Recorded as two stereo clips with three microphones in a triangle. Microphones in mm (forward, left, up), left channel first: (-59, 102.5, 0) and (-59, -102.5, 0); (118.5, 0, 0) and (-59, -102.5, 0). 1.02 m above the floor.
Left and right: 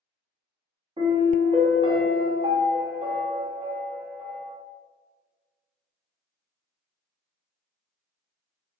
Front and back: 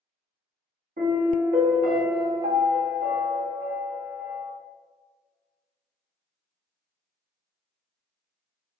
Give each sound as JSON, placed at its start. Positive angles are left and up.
{"t": 1.0, "sound": "a piano", "azimuth_deg": -140, "distance_m": 0.8}